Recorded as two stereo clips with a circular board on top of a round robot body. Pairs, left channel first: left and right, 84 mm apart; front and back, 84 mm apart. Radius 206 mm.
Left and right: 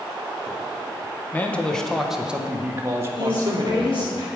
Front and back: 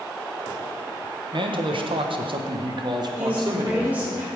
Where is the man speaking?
160° left, 1.3 m; by 4.2 s 130° right, 1.9 m.